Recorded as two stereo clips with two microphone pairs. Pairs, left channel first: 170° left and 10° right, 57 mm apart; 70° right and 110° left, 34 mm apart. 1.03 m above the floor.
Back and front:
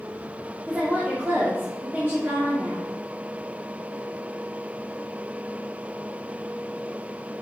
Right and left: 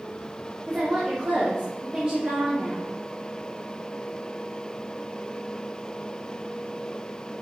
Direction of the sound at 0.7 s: 45° left.